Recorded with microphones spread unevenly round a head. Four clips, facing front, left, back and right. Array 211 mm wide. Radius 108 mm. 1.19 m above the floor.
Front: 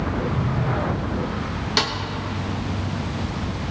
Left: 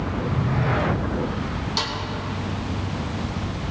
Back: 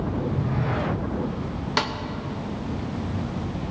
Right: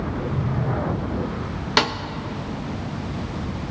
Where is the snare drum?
80° right, 0.6 m.